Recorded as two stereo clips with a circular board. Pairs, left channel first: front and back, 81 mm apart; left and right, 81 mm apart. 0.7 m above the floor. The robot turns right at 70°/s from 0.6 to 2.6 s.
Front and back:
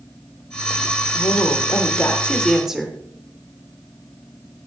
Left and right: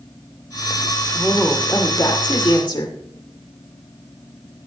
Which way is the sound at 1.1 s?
5° right.